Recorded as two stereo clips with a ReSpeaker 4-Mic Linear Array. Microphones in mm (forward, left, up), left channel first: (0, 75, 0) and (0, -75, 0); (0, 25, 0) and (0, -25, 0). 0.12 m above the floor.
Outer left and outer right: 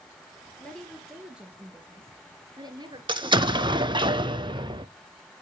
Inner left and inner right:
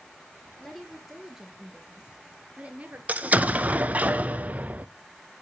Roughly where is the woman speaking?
Centre.